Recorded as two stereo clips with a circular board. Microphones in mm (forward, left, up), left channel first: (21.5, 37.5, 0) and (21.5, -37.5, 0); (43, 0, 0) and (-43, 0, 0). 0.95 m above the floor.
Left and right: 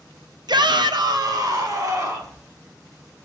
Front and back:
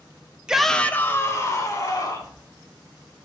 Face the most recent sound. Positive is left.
turn(degrees=-45)